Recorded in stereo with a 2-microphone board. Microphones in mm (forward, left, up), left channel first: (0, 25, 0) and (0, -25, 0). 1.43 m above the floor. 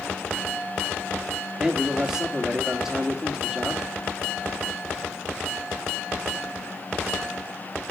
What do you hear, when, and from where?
1.6 s a man speaking: 10° right (ahead or behind), 2.5 m